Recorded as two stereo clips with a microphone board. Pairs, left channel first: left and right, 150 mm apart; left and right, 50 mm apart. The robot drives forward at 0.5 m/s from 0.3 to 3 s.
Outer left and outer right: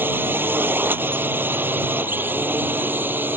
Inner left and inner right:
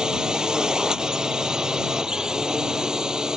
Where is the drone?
15° right (ahead or behind).